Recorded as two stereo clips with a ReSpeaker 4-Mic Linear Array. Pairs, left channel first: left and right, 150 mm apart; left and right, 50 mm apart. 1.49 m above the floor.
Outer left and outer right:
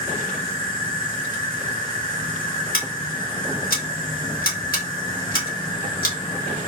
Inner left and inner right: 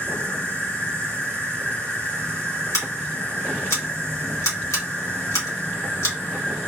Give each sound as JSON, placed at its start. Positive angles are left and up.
{"t": 0.0, "sound": "an insect", "side_deg": 35, "distance_m": 1.3}
{"t": 2.7, "sound": "scissors", "side_deg": 75, "distance_m": 1.8}